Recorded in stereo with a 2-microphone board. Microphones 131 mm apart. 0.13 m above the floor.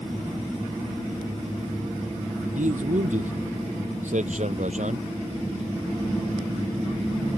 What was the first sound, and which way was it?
A man speaking, 75° right (ahead or behind).